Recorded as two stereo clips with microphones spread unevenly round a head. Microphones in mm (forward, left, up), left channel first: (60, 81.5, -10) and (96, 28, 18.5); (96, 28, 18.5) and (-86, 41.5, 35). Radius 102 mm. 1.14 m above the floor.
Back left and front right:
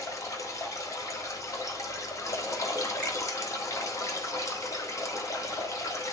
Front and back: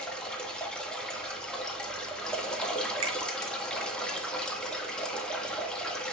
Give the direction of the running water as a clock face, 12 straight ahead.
9 o'clock.